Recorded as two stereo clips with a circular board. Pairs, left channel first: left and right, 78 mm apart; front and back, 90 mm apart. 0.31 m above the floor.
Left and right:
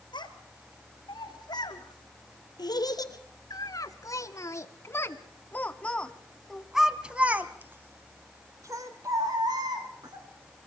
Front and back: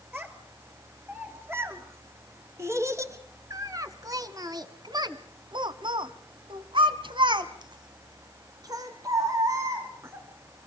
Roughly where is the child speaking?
Left.